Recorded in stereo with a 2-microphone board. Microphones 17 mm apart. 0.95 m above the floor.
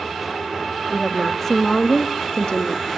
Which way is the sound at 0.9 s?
5° left (ahead or behind).